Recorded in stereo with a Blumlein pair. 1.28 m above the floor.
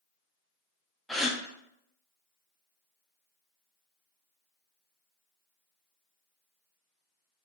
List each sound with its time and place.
1.1 s a gasp: straight ahead, 0.5 m